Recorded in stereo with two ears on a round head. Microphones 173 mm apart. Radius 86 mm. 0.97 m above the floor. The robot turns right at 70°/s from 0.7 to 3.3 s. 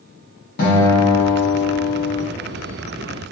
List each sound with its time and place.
0.6 s a guitar: 130° left, 0.9 m; by 2.2 s 125° right, 0.9 m